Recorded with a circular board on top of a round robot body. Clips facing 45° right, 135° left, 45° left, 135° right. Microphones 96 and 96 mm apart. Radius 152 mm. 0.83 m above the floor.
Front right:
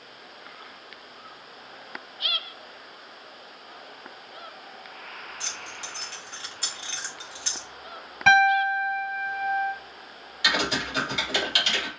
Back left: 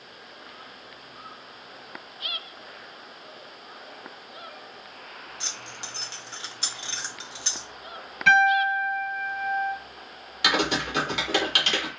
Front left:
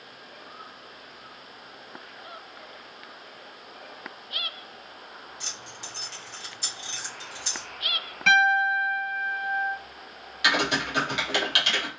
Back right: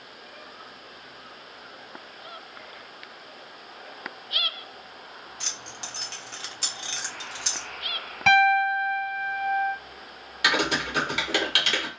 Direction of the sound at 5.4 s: 155° right.